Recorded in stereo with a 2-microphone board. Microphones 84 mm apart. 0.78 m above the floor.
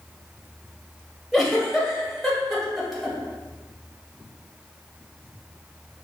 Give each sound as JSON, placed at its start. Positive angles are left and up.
{"t": 1.3, "sound": "a giggle", "side_deg": 0, "distance_m": 1.0}